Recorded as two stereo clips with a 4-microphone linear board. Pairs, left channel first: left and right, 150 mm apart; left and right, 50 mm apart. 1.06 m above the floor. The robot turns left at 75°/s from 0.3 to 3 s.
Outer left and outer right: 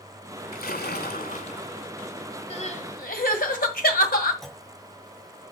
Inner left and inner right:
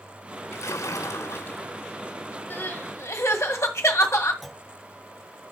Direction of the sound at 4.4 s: 5° left (ahead or behind).